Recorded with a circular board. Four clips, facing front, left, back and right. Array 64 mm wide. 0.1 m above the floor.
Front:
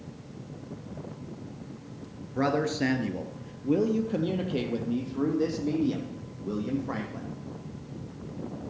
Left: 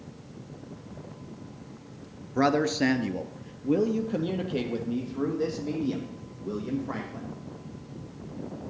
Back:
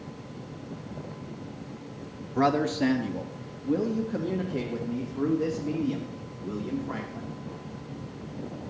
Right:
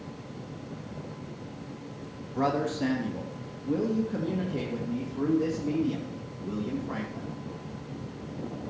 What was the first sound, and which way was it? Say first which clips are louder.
A man speaking: left 4 dB, back 2 dB; 100° left.